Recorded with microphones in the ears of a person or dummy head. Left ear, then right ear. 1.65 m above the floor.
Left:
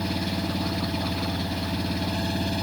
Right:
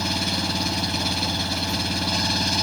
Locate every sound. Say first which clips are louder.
0.0 s an engine running: right 5 dB; 45° right (ahead or behind)